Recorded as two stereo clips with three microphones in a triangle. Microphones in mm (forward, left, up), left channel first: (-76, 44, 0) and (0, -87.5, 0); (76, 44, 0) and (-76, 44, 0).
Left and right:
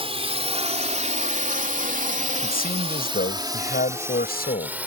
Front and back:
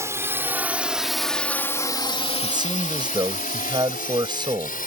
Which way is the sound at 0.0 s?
110° right.